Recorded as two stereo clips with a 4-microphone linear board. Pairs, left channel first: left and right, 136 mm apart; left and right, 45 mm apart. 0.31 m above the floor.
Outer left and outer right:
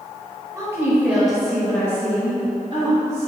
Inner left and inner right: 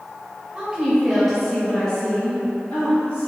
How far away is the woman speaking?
About 1.2 m.